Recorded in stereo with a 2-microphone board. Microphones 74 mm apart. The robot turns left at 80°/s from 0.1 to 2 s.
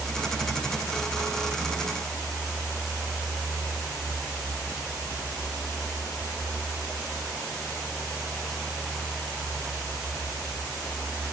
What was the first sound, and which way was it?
Only background noise.